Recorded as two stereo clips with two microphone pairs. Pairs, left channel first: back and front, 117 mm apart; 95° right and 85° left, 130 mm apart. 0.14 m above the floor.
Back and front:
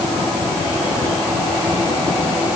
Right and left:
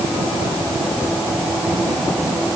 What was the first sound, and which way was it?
Only background noise.